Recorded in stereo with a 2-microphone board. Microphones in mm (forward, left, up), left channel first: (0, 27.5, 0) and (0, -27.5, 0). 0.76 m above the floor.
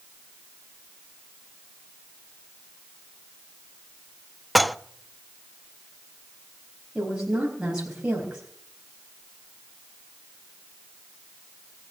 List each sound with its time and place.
4.5 s dishes clattering: centre (ahead or behind), 0.5 m
7.0 s a woman speaking: 15° right (ahead or behind), 4 m